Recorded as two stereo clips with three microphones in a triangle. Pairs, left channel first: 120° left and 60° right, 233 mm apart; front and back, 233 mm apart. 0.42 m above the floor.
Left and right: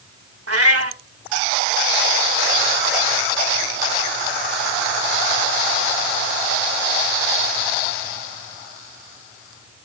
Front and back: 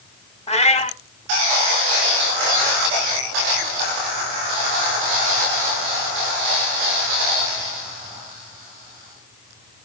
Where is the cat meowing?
65° right, 0.9 m.